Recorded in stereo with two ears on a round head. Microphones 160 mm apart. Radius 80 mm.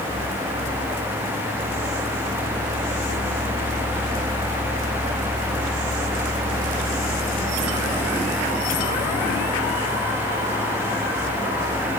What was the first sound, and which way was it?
Only background noise.